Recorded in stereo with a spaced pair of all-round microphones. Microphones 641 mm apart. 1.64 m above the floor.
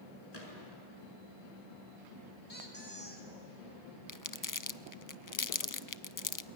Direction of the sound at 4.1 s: 30° left (ahead or behind).